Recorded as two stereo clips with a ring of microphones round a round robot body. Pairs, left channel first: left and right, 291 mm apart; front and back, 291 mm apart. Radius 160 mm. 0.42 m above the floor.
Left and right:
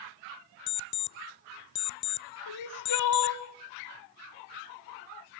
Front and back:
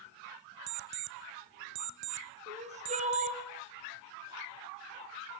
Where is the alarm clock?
145° left, 0.9 m.